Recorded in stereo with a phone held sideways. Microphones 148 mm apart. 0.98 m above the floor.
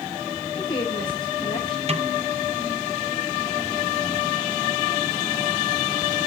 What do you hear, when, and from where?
0.6 s a woman speaking: 30° left (ahead or behind), 5 m
1.9 s a snare drum: 45° right (ahead or behind), 0.7 m